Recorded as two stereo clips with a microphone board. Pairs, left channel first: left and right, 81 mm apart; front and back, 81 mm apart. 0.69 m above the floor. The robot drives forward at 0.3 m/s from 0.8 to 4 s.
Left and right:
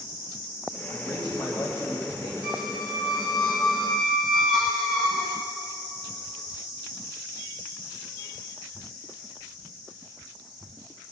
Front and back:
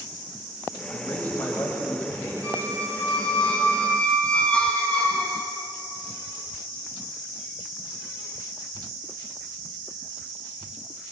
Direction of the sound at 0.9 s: 60° left.